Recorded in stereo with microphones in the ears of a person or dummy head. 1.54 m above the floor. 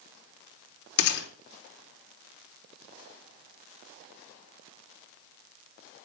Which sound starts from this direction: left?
A gunshot, at 1.0 s.